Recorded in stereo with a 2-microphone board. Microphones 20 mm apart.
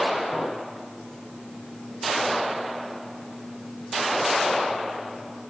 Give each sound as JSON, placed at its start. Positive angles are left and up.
{"t": 0.3, "sound": "a clink", "side_deg": 70, "distance_m": 6.5}